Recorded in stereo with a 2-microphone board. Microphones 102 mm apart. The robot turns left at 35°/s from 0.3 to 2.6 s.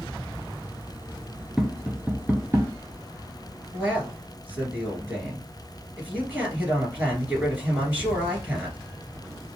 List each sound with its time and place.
1.6 s tapping: centre (ahead or behind), 0.6 m; by 2.7 s 30° right (ahead or behind), 0.6 m
3.7 s a man speaking: 15° right (ahead or behind), 2 m